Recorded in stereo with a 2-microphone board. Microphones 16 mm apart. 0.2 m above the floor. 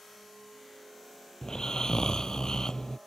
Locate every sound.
1.4 s snoring: 55° left (ahead or behind)